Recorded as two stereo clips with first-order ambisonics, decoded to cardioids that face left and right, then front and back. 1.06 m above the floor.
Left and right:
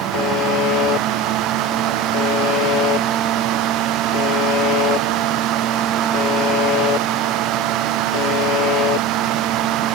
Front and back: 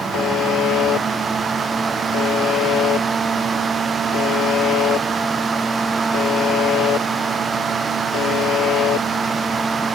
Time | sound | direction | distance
0.1 | a buzzer | 50° left | ?